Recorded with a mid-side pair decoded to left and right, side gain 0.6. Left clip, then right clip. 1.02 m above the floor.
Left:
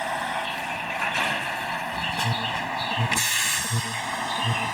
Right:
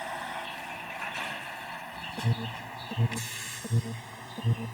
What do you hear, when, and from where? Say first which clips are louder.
0.0 s a vehicle: left 8 dB; 40° left; by 4.8 s 65° left
2.2 s an alarm: left 10 dB; 5° right